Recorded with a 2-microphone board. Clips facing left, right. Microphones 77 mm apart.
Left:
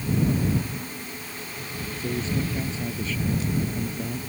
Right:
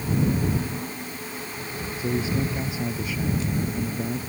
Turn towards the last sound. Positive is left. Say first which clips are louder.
# right 2 dB
turn(degrees=-10)  # may be behind; listen again after turning